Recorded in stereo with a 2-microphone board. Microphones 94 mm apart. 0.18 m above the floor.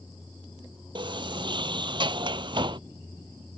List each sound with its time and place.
0.9 s a sliding door: 60° right (ahead or behind)